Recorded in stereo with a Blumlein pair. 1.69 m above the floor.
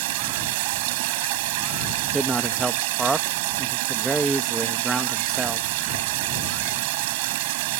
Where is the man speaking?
10° right.